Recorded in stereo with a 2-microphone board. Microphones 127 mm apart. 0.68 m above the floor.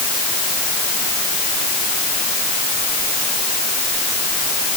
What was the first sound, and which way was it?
Only background noise.